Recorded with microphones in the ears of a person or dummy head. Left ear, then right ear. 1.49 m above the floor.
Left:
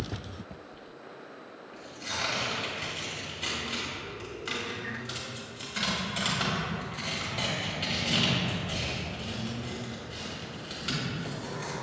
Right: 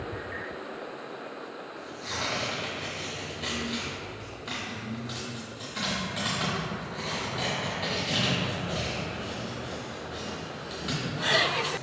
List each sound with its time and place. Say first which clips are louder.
1.7 s tearing paper: left 1 dB; 20° left (ahead or behind), 1.2 m